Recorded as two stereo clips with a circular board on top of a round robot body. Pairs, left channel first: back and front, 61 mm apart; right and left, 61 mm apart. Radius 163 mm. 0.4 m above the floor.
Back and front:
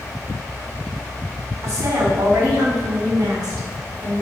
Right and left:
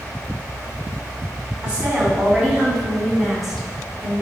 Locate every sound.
1.6 s a woman speaking: 20° left, 4.5 m; by 4.2 s 5° right, 5 m